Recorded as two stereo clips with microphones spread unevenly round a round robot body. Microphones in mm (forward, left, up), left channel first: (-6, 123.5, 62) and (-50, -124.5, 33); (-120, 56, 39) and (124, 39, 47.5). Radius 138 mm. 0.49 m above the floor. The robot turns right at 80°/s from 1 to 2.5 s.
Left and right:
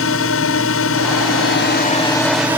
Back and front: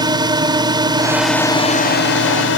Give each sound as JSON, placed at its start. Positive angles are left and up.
{"t": 0.0, "sound": "a drone", "azimuth_deg": 65}